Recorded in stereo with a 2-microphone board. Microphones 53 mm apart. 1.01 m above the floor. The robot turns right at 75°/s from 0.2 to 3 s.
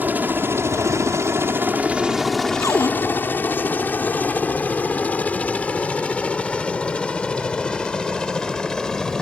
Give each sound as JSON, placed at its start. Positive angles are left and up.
{"t": 0.0, "sound": "a helicopter", "side_deg": -35}
{"t": 2.6, "sound": "a cupboard door", "side_deg": 85}